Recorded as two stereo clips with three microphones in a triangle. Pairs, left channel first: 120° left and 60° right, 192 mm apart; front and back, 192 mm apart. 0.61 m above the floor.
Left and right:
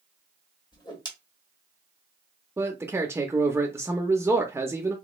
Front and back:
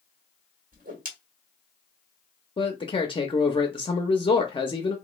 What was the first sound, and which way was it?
A whoosh, straight behind.